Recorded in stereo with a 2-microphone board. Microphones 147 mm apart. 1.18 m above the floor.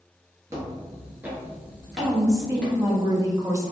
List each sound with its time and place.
0.5 s footsteps: 20° right (ahead or behind), 1.3 m; by 2.8 s 10° left (ahead or behind), 1.3 m
1.9 s a woman speaking: 20° right (ahead or behind), 0.8 m